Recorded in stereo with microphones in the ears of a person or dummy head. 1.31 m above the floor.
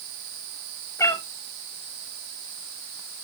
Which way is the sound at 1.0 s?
15° left (ahead or behind).